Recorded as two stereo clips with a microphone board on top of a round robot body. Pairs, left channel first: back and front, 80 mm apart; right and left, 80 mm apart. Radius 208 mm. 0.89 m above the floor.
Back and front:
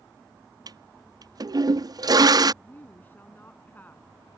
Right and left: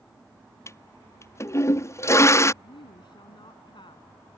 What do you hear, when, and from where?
0.7 s a toilet flushing: 35° right
2.6 s a woman speaking: 110° right